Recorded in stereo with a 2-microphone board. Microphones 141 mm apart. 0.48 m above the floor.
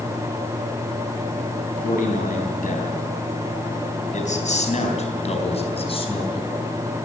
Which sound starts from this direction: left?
A man speaking, at 1.8 s.